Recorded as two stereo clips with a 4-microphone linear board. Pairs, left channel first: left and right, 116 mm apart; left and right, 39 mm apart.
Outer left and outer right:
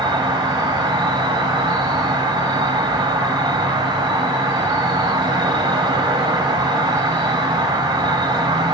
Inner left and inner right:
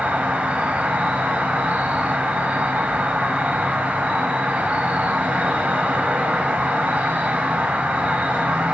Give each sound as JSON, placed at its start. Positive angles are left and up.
{"t": 0.0, "sound": "an insect", "side_deg": -40, "distance_m": 0.9}